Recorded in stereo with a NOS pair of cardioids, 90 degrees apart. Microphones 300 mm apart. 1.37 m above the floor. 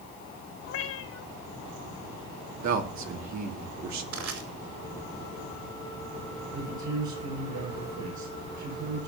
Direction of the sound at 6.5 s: 65° right.